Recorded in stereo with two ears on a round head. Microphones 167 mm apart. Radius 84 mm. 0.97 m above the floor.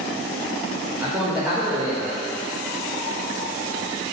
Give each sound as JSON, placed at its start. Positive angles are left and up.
{"t": 1.0, "sound": "a man speaking", "side_deg": -10, "distance_m": 1.1}